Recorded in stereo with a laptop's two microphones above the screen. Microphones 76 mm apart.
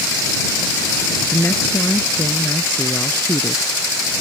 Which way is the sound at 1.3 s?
25° left (ahead or behind).